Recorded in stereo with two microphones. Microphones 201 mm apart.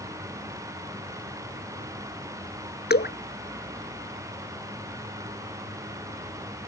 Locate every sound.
2.9 s dripping: 55° left (ahead or behind)